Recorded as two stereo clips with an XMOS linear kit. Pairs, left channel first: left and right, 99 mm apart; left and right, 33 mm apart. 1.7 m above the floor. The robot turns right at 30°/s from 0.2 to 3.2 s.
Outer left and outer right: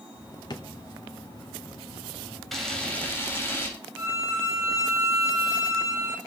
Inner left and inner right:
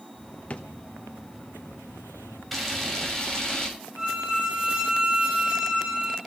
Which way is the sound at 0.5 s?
45° left (ahead or behind).